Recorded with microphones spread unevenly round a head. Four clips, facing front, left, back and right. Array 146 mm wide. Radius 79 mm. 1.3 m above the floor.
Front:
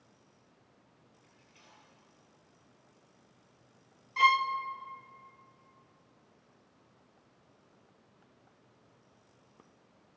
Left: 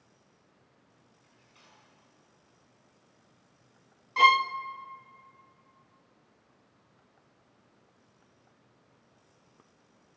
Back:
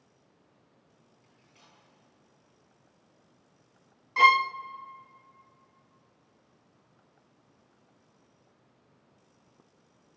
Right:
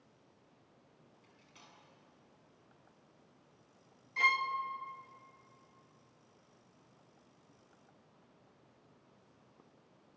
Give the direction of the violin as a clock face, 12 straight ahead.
8 o'clock.